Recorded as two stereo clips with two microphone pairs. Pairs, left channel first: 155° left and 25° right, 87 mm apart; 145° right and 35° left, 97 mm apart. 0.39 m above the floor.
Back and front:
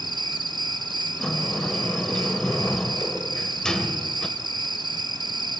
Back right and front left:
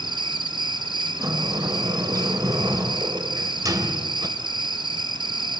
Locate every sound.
0.0 s an insect: straight ahead, 1.1 m
1.2 s a sliding door: 75° left, 1.7 m